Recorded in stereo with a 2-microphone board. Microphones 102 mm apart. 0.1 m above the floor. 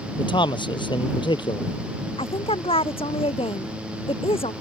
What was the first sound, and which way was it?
A man speaking, 55° left (ahead or behind).